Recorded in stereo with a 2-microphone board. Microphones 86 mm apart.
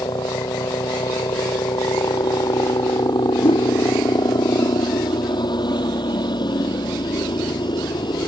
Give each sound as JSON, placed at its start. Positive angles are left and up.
{"t": 0.0, "sound": "a helicopter", "side_deg": 55}
{"t": 3.4, "sound": "a whoosh", "side_deg": 80}